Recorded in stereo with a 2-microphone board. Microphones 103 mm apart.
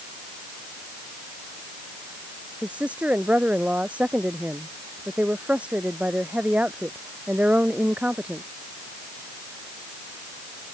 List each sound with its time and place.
2.6 s a woman speaking: 10° right (ahead or behind)